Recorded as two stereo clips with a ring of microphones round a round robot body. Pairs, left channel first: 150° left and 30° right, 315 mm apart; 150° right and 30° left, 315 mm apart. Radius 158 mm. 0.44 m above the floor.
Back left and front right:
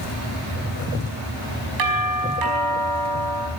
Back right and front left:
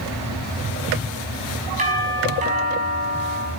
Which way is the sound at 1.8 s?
35° right.